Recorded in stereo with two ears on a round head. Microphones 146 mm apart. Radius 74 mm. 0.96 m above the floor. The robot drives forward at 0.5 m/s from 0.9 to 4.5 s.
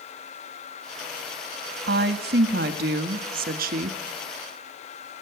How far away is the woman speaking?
About 1.9 m.